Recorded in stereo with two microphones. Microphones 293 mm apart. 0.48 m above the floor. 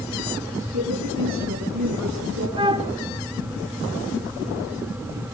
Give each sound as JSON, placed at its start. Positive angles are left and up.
{"t": 0.7, "sound": "a woman speaking", "side_deg": -65, "distance_m": 5.0}
{"t": 2.6, "sound": "a flute", "side_deg": -20, "distance_m": 0.7}